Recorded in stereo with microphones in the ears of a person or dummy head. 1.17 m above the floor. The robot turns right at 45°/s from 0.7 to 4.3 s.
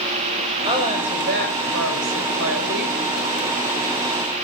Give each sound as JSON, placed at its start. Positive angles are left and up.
{"t": 0.6, "sound": "a woman speaking", "azimuth_deg": -155, "distance_m": 6.5}